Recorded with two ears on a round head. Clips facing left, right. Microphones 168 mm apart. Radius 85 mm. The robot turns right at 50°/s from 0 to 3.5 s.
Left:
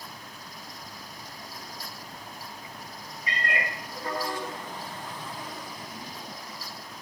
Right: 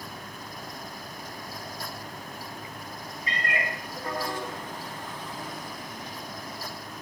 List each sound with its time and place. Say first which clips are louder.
3.3 s a cat meowing: even; 15° left (ahead or behind), 0.6 m; by 3.7 s 25° left (ahead or behind), 0.6 m